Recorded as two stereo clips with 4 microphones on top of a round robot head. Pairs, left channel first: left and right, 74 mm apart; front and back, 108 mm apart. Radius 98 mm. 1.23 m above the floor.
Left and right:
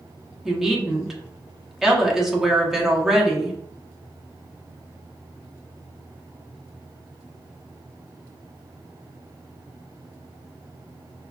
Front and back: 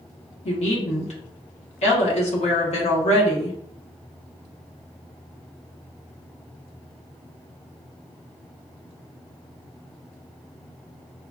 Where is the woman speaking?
5° right, 1.2 m.